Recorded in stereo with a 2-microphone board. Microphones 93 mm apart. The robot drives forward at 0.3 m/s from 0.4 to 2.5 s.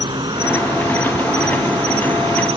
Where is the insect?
60° right (ahead or behind); by 2.6 s 80° right.